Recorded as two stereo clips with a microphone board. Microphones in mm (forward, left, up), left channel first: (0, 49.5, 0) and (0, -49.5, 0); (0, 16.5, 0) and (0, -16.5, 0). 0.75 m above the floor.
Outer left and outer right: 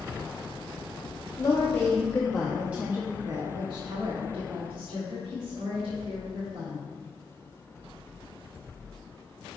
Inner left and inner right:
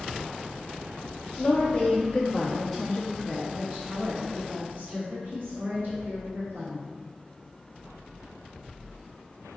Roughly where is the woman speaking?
Left.